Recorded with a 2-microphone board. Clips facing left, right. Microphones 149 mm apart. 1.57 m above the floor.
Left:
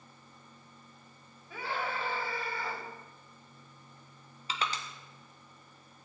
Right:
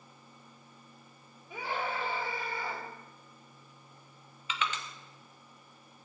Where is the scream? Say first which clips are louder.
Right 1 dB; 15° right (ahead or behind), 4 m.